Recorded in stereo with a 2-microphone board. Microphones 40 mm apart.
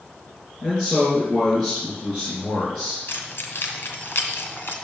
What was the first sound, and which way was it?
A man speaking, 20° left (ahead or behind).